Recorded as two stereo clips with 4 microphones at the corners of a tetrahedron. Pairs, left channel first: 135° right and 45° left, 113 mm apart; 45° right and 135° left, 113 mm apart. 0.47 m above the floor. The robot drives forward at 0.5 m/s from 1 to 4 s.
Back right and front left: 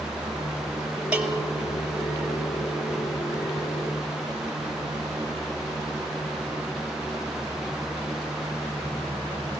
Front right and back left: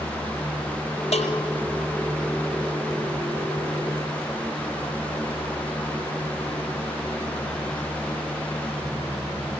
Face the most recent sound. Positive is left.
turn(degrees=-45)